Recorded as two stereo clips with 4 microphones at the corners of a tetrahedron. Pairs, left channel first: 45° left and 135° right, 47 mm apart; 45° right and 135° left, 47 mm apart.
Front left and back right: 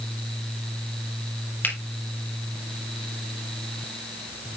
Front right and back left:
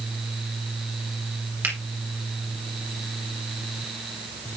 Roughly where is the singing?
I don't hear singing.